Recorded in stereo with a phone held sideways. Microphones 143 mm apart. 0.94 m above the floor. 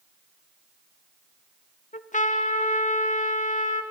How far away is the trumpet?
About 0.8 m.